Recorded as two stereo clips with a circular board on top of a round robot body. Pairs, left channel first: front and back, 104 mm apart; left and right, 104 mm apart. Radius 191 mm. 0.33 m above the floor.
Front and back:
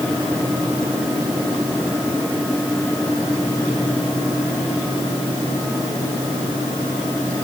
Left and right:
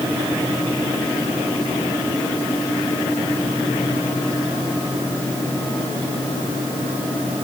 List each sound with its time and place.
Only background noise.